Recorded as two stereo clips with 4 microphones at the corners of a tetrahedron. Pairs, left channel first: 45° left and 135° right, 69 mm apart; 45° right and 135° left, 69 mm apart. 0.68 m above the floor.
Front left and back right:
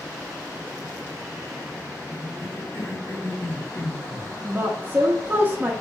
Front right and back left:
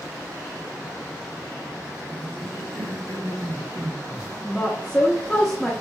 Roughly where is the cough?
Left.